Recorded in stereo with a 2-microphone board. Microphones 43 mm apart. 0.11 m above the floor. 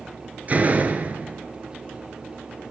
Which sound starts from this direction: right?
A door slam, at 0.5 s.